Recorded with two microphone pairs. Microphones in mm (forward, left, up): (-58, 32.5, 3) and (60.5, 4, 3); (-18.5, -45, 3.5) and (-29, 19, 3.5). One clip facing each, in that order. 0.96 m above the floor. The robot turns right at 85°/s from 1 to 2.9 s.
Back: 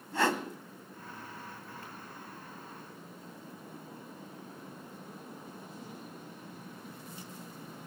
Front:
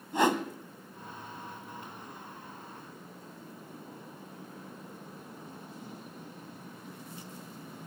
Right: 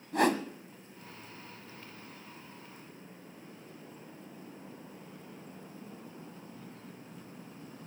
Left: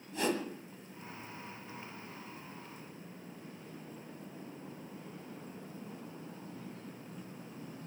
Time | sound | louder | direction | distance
0.1 | a whoosh | front 3 dB, right 6 dB | 80° right | 1.4 m